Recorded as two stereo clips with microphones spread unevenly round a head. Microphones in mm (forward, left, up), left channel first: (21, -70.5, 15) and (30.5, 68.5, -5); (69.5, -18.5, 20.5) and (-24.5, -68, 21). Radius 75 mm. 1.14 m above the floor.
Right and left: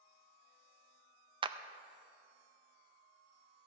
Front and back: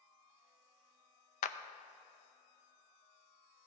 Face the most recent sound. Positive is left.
turn(degrees=30)